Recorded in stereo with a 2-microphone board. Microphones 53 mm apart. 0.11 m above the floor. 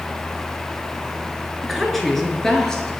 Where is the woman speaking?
Centre (ahead or behind), 1.8 m; by 2.9 s 10° left (ahead or behind), 2.5 m.